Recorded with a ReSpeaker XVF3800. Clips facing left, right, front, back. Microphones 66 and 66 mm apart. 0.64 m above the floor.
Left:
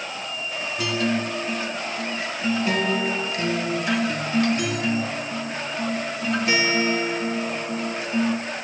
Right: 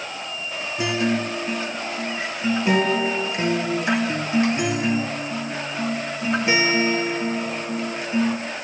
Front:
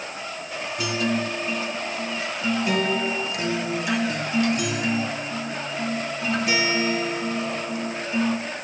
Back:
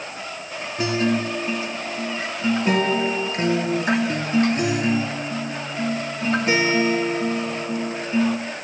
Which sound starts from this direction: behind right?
A guitar, at 0.8 s.